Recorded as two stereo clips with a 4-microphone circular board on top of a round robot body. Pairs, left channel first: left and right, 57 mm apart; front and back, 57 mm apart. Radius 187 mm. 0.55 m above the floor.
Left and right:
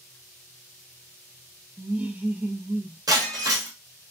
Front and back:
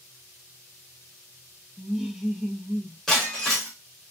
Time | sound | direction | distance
1.8 | laughter | 105° right | 0.7 m
3.1 | breaking glass | 80° right | 0.9 m